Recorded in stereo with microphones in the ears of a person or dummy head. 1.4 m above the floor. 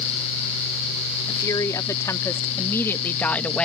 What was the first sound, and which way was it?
A woman speaking, 20° left (ahead or behind).